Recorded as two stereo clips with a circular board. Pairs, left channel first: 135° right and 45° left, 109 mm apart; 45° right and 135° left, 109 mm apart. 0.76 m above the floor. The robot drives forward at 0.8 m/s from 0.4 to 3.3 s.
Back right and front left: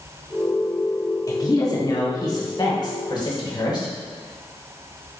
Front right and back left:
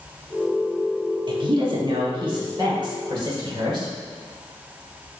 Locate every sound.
1.3 s a woman speaking: 175° left, 1.2 m